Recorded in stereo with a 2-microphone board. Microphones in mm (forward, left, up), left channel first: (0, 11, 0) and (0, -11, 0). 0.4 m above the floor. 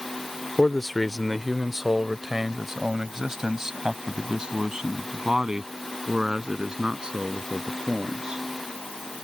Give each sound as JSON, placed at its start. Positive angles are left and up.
{"t": 0.6, "sound": "a man speaking", "side_deg": 15}